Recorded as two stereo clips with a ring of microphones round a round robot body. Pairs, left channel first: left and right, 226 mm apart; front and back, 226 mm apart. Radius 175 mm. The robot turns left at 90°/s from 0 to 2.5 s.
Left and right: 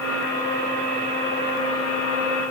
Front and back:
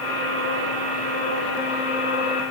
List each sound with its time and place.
Only background noise.